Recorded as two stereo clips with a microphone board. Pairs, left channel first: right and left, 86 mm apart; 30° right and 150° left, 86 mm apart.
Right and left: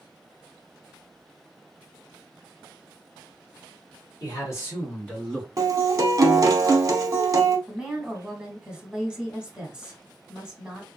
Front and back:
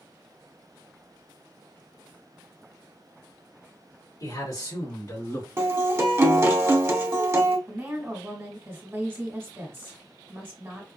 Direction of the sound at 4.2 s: 55° right.